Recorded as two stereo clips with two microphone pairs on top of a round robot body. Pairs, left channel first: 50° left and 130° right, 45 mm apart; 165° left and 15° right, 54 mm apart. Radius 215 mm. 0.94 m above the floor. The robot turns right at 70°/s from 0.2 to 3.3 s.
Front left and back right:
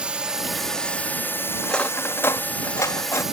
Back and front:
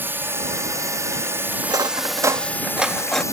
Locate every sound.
0.0 s a drone: 60° right; by 3.3 s 155° left
1.6 s cutlery clinking: 25° right; by 3.2 s 90° left